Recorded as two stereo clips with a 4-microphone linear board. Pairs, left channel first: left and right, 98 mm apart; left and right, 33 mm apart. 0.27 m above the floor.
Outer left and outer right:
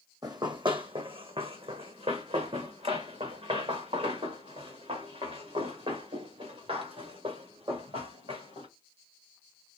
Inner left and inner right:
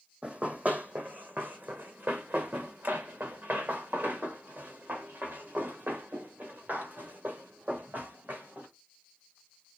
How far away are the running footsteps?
About 0.8 m.